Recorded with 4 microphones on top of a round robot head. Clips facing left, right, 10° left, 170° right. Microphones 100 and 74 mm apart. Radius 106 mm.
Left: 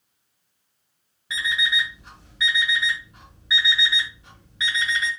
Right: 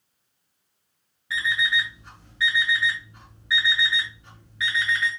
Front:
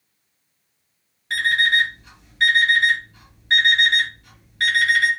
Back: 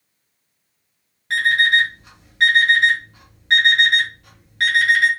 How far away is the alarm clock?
About 1.0 m.